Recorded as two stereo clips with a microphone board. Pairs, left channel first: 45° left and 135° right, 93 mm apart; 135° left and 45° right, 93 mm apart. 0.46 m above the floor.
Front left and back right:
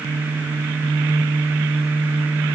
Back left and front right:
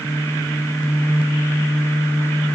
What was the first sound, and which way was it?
Only background noise.